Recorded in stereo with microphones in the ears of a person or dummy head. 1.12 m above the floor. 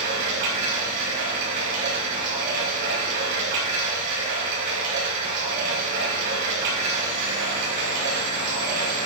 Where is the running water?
65° right (ahead or behind), 4 m.